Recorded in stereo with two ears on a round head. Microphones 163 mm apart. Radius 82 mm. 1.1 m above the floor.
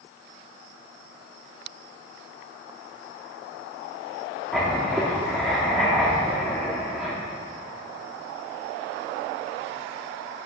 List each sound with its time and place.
4.5 s writing: centre (ahead or behind), 1.0 m